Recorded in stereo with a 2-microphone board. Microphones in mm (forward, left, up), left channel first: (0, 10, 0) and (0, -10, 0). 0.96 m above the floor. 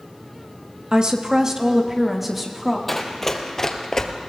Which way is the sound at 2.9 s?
10° left (ahead or behind).